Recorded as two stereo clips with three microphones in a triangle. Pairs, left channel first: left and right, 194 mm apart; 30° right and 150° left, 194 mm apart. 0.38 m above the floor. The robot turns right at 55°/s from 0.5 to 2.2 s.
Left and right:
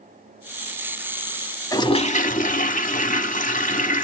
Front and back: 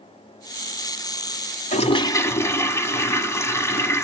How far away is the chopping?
No chopping in this recording.